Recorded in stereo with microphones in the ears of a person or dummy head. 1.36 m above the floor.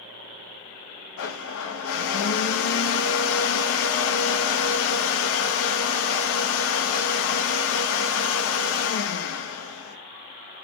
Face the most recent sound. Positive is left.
turn(degrees=70)  # may be behind; listen again after turning